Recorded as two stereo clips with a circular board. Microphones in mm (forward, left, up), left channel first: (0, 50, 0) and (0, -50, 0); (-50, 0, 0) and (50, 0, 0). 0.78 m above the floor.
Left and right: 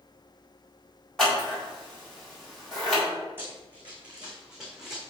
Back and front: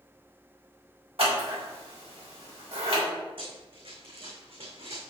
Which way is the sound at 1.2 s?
5° left.